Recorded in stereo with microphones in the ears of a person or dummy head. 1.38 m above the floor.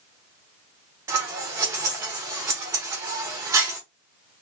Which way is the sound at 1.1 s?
15° right (ahead or behind).